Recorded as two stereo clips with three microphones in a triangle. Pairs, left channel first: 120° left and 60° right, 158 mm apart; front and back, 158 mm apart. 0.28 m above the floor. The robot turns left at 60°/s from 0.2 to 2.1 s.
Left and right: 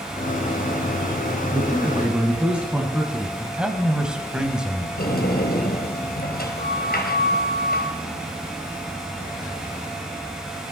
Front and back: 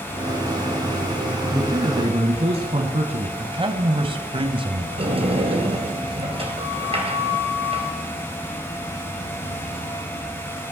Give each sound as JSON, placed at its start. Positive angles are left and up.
{"t": 1.5, "sound": "a man speaking", "azimuth_deg": -105, "distance_m": 1.6}
{"t": 3.4, "sound": "a man speaking", "azimuth_deg": -140, "distance_m": 1.9}
{"t": 5.0, "sound": "a sliding door", "azimuth_deg": 130, "distance_m": 2.5}